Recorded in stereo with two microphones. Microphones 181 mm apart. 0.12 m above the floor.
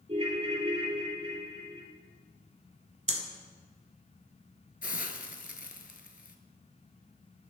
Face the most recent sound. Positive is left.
turn(degrees=55)  # may be behind; listen again after turning